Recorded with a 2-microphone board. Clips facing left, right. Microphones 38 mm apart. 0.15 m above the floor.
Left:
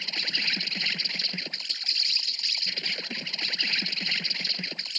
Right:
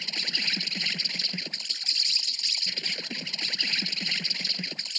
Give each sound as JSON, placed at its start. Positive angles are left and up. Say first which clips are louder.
{"t": 0.0, "sound": "an insect", "louder": "left 1 dB", "side_deg": 10}